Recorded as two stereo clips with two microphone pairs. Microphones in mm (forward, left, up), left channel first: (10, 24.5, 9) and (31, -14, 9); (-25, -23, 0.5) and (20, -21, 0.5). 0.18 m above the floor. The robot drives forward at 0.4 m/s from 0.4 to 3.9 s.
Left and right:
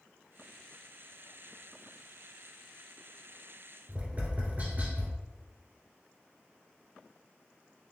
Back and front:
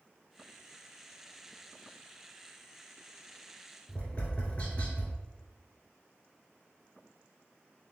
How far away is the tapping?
About 1.3 m.